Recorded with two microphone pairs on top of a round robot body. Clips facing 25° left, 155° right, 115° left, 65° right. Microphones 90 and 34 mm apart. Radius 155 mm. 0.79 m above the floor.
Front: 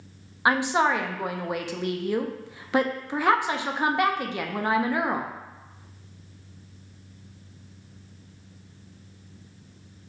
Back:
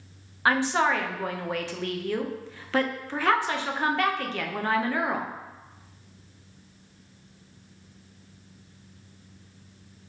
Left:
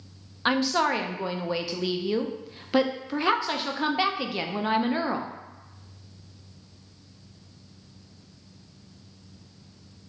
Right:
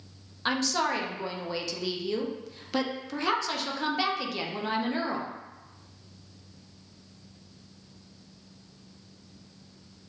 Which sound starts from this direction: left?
A woman speaking, at 0.5 s.